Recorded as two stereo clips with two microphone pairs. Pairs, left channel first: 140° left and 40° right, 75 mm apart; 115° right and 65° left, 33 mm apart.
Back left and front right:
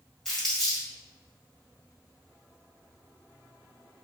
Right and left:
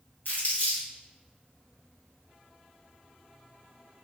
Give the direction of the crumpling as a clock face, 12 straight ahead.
5 o'clock.